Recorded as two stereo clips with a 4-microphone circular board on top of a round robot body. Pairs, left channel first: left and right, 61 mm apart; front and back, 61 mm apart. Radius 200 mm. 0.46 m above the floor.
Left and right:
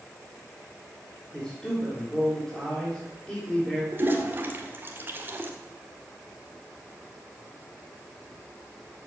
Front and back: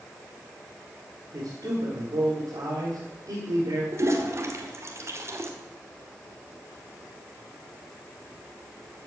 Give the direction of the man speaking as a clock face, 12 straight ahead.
6 o'clock.